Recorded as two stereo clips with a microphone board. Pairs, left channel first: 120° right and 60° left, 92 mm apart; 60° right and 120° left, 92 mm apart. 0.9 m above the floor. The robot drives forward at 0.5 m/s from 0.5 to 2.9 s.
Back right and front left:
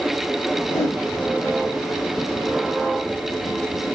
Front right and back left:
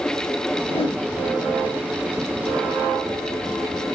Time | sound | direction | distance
0.6 | a whoosh | 60° right | 1.3 m